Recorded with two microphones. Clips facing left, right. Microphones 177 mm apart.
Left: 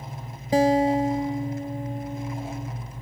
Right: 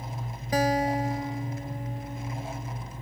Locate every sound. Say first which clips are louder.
0.5 s a guitar: left 6 dB; 25° left (ahead or behind)